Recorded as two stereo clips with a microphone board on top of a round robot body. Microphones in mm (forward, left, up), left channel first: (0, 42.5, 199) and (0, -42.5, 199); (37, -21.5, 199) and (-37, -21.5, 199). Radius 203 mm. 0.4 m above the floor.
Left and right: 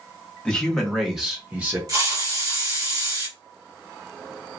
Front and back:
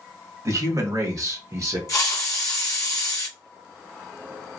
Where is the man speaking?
165° left, 1.5 m; by 1.8 s 155° right, 1.5 m.